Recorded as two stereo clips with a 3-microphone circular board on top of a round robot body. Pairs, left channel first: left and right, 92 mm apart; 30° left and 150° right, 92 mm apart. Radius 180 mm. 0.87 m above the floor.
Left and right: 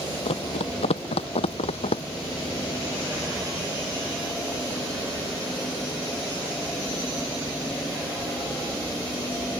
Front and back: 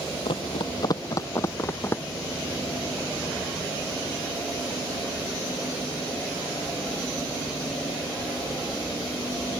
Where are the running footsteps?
65° left; by 2.0 s 100° left.